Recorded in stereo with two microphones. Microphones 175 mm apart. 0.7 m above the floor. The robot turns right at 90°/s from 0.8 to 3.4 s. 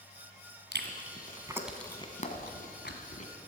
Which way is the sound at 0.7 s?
75° right (ahead or behind).